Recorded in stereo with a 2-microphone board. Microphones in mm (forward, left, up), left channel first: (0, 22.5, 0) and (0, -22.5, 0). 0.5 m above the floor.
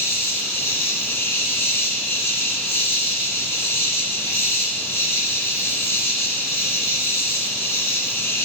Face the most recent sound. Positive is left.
turn(degrees=65)  # may be behind; listen again after turning